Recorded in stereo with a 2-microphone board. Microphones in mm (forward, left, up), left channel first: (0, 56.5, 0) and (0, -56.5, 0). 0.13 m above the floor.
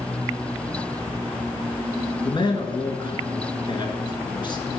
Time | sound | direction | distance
2.2 | a man speaking | 40° left (ahead or behind) | 1.3 m